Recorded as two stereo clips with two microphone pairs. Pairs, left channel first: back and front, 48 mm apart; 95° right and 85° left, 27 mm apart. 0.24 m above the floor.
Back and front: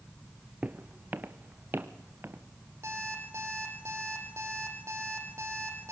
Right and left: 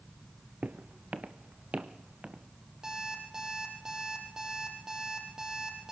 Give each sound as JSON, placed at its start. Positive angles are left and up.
{"t": 0.6, "sound": "footsteps", "azimuth_deg": 55, "distance_m": 1.1}
{"t": 2.8, "sound": "an alarm clock", "azimuth_deg": 20, "distance_m": 5.0}